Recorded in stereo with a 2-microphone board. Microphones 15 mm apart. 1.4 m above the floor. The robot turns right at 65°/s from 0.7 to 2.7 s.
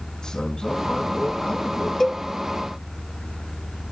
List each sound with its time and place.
0.2 s a man speaking: 50° left, 4.5 m; by 1.9 s 125° left, 4.5 m
2.0 s a cowbell: 30° left (ahead or behind), 0.8 m; by 2.2 s 15° left (ahead or behind), 0.8 m